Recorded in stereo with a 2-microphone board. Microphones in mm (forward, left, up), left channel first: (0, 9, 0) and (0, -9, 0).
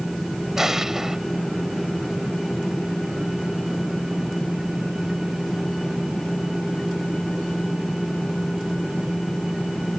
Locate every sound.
0.6 s an explosion: 20° right (ahead or behind)